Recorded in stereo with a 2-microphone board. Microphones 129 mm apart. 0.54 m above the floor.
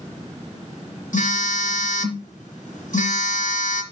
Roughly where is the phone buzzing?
Left.